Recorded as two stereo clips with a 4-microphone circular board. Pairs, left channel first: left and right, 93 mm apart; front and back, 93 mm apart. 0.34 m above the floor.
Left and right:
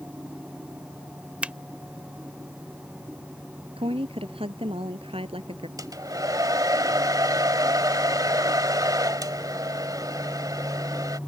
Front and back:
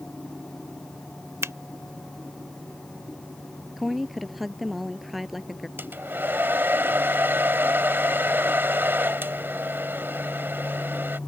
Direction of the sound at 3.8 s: 90° right.